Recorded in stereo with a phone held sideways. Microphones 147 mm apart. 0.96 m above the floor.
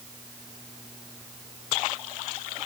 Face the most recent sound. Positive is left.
No sound to turn to.